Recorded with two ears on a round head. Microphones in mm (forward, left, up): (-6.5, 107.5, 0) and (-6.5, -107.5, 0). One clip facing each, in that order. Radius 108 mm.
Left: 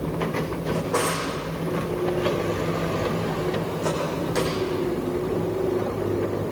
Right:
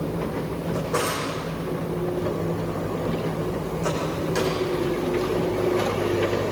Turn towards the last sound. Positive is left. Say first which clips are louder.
# left 1 dB
turn(degrees=0)  # may be behind; listen again after turning